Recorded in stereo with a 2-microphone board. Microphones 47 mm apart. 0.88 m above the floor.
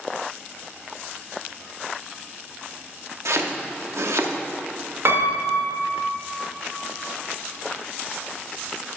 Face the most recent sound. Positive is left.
turn(degrees=-65)  # may be behind; listen again after turning